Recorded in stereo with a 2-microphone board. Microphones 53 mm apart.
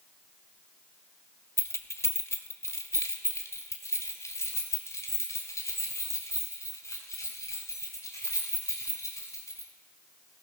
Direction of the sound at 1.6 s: 55° left (ahead or behind).